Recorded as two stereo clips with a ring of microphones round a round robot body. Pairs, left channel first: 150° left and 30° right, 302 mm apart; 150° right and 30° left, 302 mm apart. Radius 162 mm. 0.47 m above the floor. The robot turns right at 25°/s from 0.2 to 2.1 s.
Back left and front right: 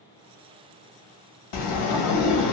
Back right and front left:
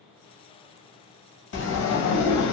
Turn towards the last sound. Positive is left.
turn(degrees=170)